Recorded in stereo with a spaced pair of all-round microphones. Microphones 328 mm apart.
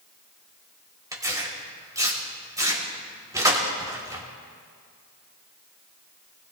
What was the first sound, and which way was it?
Tearing paper, 10° right (ahead or behind).